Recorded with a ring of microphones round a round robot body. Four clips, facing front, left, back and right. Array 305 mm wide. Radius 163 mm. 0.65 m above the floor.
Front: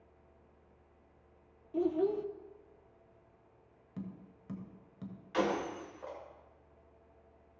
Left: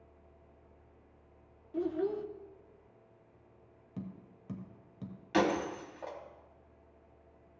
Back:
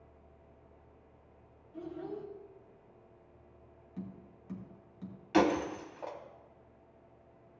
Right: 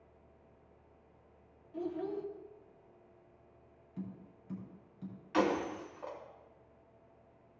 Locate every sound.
1.7 s a child speaking: 25° left, 0.8 m
4.0 s tapping: 60° left, 1.3 m
5.3 s breaking glass: 145° left, 1.2 m